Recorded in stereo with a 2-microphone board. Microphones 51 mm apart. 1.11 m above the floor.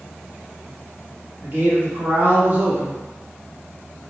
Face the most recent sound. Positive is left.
turn(degrees=-40)  # may be behind; listen again after turning